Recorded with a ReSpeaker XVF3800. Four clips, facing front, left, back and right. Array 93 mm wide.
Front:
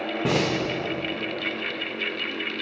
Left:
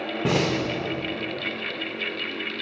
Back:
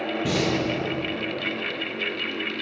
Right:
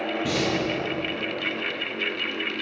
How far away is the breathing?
About 0.7 m.